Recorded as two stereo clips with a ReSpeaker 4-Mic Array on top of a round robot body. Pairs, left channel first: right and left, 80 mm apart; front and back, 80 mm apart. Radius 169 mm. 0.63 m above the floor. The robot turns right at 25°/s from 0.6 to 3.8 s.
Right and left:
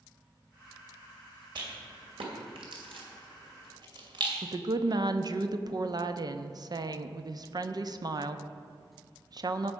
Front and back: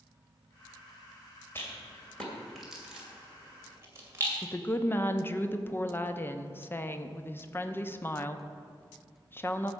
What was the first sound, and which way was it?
A rattle, 65° left.